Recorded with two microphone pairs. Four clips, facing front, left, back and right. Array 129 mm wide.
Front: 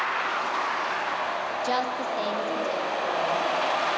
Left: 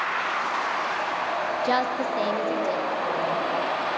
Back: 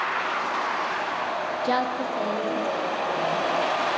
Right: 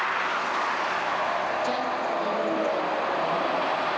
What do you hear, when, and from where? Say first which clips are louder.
1.6 s a woman speaking: left 3 dB, back 3 dB; 120° left, 0.6 m; by 3.4 s 65° left, 3 m